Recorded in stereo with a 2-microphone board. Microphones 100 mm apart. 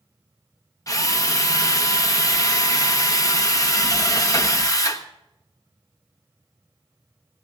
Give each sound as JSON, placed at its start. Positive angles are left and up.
{"t": 0.9, "sound": "a drill", "side_deg": 35, "distance_m": 1.1}